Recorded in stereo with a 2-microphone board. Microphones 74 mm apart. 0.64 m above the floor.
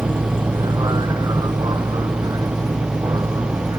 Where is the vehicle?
60° right (ahead or behind); by 3.8 s 55° right (ahead or behind).